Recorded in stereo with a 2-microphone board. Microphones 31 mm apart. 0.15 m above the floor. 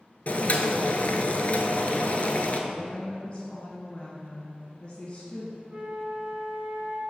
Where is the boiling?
50° left (ahead or behind), 0.6 m.